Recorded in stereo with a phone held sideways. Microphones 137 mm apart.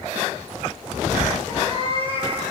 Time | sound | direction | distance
1.5 | a cat meowing | 45° right (ahead or behind) | 7 m